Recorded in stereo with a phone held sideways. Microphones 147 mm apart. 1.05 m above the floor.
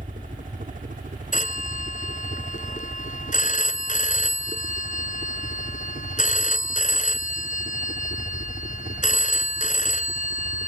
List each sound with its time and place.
0.0 s a helicopter: 65° right (ahead or behind)
1.3 s a phone ringing: 60° left (ahead or behind)